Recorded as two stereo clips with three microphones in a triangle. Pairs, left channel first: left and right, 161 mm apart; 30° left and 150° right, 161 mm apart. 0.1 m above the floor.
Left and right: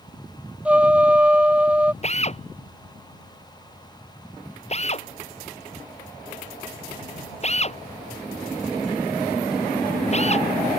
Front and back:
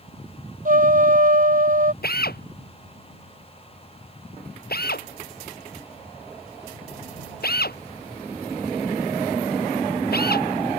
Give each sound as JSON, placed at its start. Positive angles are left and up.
{"t": 0.7, "sound": "a trumpet", "azimuth_deg": -170}
{"t": 2.0, "sound": "a drill", "azimuth_deg": 45}